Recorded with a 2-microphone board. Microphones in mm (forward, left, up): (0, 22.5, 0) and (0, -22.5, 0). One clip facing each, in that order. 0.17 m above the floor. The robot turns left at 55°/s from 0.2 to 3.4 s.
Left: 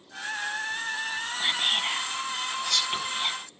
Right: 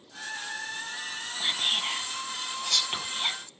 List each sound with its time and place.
1.4 s whispering: 20° left (ahead or behind), 1.0 m; by 3.4 s 10° right (ahead or behind), 1.0 m